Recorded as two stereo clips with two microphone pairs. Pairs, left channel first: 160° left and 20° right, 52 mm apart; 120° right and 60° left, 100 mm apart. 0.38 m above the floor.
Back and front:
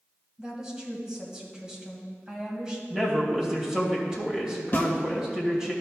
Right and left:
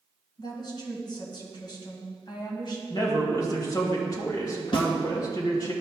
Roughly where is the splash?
I don't hear a splash.